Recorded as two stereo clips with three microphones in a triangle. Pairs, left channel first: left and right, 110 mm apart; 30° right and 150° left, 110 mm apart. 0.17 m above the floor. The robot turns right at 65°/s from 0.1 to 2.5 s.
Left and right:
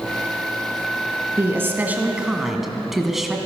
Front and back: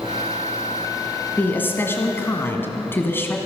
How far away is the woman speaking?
About 1.6 m.